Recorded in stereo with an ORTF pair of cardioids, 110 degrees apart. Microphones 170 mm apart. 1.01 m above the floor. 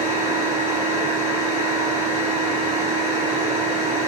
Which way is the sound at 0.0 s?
35° right.